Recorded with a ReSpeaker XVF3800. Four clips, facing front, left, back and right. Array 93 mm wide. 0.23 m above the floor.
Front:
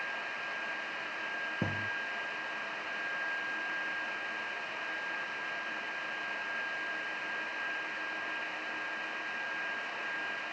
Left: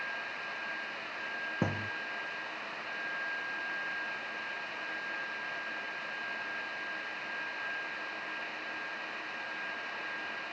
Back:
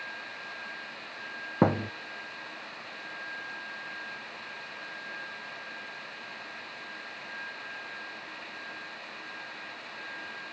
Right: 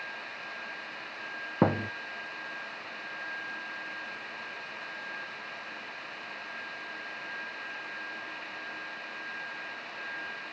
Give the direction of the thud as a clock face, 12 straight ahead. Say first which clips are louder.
Right 10 dB, back 13 dB; 5 o'clock.